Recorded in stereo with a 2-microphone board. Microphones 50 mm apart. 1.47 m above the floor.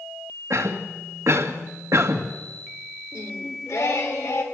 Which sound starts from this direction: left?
Singing, at 3.1 s.